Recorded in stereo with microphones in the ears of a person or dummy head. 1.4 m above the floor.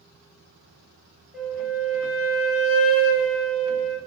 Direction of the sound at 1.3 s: 5° right (ahead or behind).